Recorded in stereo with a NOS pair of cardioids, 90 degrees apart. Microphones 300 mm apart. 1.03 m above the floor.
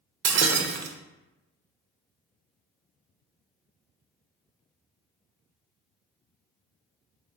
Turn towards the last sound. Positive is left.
turn(degrees=-70)